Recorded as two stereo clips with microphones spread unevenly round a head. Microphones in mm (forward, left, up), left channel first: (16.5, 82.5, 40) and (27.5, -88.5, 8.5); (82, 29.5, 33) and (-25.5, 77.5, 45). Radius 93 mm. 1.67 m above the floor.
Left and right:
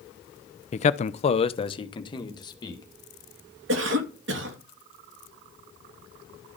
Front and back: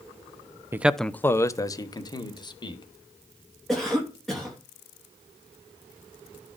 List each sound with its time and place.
0.7 s a man speaking: 100° left, 0.6 m; by 2.8 s 30° left, 2.5 m
3.7 s a cough: 115° right, 2.5 m